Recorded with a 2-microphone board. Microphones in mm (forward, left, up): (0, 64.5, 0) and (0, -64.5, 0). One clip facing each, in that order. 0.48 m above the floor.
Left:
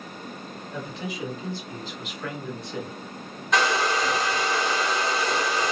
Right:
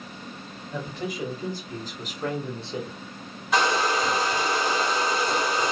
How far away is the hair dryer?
About 2 m.